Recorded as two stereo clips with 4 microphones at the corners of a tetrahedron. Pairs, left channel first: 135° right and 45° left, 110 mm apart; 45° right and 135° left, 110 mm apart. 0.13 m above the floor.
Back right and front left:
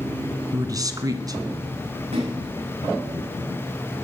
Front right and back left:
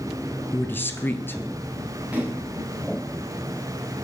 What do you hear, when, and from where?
0.5 s a man speaking: 15° left, 1.5 m
2.1 s a splash: 60° left, 8.5 m